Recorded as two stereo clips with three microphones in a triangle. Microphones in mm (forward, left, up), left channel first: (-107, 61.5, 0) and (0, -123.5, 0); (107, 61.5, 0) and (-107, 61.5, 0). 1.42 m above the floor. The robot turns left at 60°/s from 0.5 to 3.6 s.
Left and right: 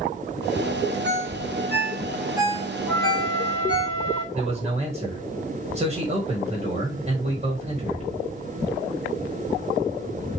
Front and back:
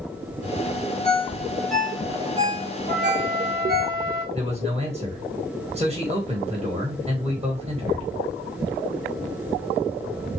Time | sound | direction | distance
1.0 | a ringtone | 50° right | 1.4 m
2.9 | a flute | 145° right | 1.9 m
4.3 | a man speaking | 120° right | 1.4 m